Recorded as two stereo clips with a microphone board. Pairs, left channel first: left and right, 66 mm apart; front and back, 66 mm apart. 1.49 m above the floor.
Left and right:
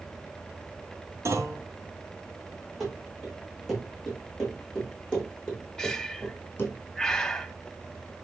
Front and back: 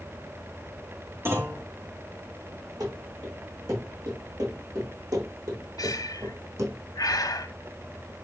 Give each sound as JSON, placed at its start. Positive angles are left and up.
{"t": 1.2, "sound": "a clunk", "azimuth_deg": -130, "distance_m": 4.0}
{"t": 2.8, "sound": "running footsteps", "azimuth_deg": -175, "distance_m": 7.5}
{"t": 5.8, "sound": "breathing", "azimuth_deg": 10, "distance_m": 1.4}